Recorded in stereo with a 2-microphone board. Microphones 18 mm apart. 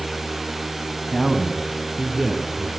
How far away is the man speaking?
About 2.5 m.